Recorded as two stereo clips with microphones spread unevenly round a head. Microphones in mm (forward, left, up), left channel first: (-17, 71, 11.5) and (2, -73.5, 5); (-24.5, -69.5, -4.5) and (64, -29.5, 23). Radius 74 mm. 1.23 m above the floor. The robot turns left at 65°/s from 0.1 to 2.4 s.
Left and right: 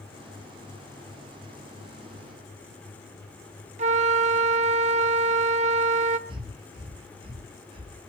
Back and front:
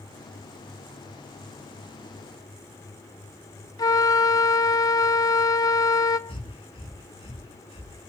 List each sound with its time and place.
3.8 s a flute: 105° right, 1.0 m
6.3 s breathing: 140° right, 6 m